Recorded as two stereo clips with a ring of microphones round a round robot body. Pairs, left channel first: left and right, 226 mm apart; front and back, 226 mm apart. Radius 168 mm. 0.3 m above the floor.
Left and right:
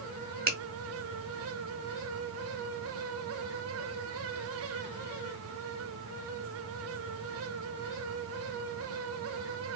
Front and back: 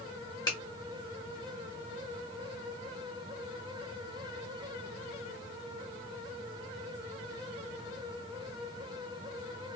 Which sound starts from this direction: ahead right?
A finger snap, at 0.5 s.